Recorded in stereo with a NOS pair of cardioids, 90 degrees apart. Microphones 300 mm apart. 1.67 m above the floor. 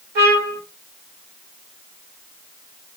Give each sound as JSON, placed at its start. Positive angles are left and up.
{"t": 0.1, "sound": "a trumpet", "azimuth_deg": -65, "distance_m": 1.6}